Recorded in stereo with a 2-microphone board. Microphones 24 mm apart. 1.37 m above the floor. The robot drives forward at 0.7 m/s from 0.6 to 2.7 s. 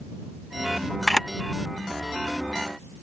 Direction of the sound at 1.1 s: 10° left (ahead or behind).